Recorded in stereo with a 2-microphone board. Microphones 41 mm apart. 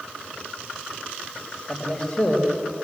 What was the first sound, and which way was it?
A man speaking, 25° left (ahead or behind).